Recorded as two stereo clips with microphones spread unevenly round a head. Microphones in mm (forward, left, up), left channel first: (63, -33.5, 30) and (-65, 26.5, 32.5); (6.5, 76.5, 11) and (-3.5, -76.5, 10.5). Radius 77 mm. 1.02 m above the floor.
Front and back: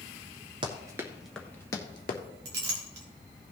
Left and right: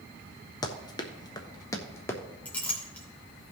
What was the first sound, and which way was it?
Running footsteps, 130° left.